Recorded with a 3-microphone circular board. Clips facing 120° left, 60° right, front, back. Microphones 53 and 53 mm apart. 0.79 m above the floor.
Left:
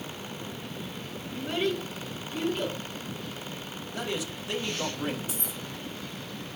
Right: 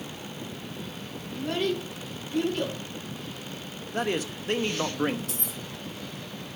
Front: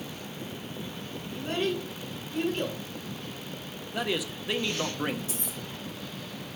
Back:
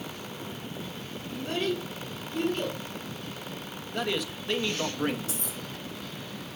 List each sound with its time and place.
1.3 s a child speaking: 70° right, 4.5 m
3.9 s a man speaking: 85° right, 0.9 m
5.3 s keys jangling: 65° right, 4.5 m